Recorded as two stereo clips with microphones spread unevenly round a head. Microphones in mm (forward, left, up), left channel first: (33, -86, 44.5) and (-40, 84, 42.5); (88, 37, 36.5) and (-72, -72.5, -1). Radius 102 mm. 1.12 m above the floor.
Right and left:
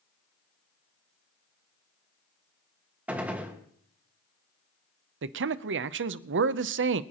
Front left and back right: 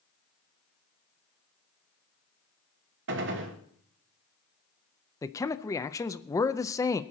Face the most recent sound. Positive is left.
turn(degrees=115)